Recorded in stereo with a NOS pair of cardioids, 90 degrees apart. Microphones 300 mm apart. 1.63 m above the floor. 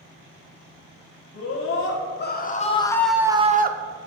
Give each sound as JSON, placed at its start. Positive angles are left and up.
{"t": 1.3, "sound": "a scream", "azimuth_deg": 50, "distance_m": 2.5}